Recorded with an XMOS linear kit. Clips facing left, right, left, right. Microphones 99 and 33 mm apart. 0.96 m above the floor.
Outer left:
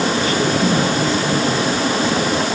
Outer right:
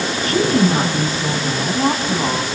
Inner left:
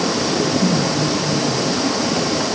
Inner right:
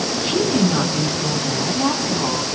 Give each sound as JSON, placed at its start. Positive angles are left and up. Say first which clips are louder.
{"t": 0.2, "sound": "a woman speaking", "louder": "outer right 1 dB, inner right 3 dB", "side_deg": -40, "distance_m": 9.5}